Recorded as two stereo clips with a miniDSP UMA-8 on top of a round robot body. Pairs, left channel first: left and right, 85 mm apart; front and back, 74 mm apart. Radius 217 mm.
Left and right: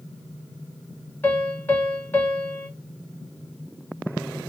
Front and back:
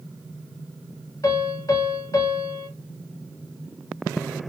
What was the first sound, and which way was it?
A piano, 25° left.